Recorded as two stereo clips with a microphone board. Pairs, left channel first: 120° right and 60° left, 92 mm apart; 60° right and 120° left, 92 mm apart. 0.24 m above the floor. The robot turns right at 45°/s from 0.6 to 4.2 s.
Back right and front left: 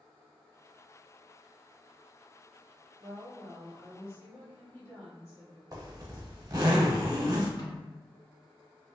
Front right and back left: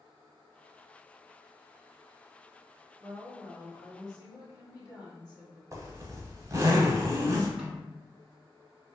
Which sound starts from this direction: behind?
A snare drum, at 7.6 s.